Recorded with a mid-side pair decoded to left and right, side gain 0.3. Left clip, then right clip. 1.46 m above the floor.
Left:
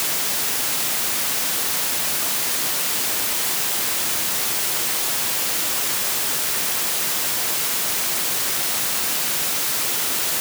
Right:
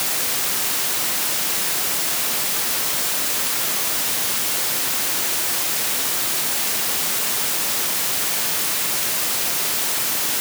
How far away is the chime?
I don't hear a chime.